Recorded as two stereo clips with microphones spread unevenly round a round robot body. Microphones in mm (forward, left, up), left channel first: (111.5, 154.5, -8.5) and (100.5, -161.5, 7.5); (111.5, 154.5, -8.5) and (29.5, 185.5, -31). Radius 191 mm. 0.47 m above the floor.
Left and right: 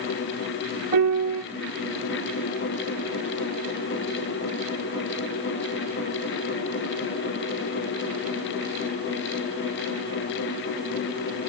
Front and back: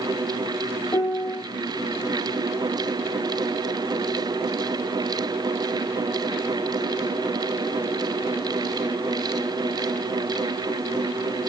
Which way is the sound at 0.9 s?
90° right.